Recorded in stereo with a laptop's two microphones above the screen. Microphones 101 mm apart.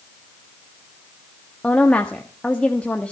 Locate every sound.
1.6 s a woman speaking: 15° left (ahead or behind), 1.4 m